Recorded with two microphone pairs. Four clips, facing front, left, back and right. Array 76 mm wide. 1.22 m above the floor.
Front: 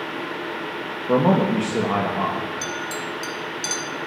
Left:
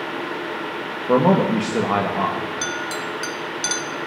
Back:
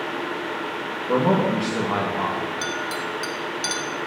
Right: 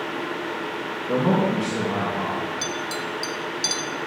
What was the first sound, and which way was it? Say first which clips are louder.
A man speaking: left 5 dB, front 2 dB; 70° left.